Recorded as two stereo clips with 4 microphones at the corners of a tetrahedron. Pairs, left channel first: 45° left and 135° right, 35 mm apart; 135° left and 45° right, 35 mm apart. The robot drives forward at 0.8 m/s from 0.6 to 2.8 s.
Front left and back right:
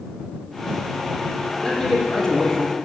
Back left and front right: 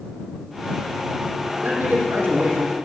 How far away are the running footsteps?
No running footsteps in this recording.